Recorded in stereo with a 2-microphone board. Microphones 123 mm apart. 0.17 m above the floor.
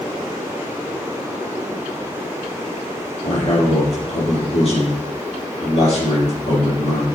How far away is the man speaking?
About 4.5 m.